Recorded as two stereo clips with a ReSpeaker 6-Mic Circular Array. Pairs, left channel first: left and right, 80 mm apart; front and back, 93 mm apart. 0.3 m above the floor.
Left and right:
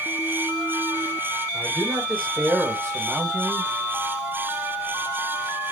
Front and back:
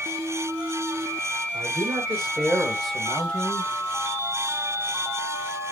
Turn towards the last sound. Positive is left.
turn(degrees=-40)